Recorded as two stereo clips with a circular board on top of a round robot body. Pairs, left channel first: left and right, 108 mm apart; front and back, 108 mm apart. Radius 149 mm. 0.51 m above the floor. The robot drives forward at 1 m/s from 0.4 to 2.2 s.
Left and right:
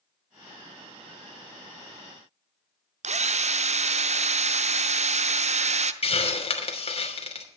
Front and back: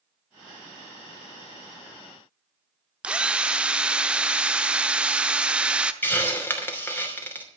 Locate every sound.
3.0 s a drill: 100° right, 0.9 m
6.0 s a hiss: 70° left, 3 m